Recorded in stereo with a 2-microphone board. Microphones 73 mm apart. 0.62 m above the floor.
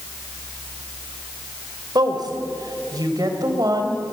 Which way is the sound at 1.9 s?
70° right (ahead or behind).